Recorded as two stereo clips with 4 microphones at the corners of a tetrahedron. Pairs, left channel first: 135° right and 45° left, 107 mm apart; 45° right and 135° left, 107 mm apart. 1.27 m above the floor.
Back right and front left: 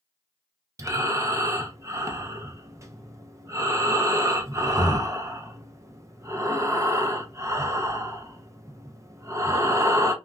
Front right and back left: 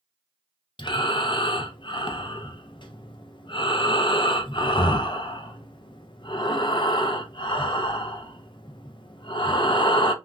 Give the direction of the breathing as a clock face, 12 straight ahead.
12 o'clock.